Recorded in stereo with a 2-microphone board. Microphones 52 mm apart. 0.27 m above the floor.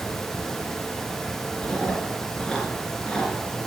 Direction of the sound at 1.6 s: 10° left (ahead or behind).